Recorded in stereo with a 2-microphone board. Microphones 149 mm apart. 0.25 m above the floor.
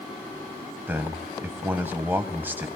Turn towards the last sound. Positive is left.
turn(degrees=-15)  # may be behind; listen again after turning